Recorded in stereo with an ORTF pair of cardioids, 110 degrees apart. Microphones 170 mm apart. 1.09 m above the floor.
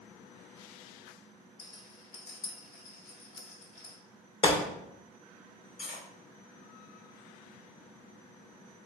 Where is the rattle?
65° left, 1.8 m.